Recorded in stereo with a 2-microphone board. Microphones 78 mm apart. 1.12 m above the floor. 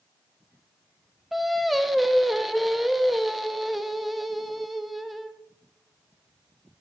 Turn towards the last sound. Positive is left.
turn(degrees=0)  # may be behind; listen again after turning